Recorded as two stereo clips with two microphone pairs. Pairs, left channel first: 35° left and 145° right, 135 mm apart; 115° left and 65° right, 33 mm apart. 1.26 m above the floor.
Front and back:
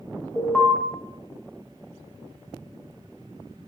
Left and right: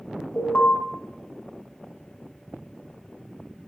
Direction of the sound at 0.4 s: 115° left.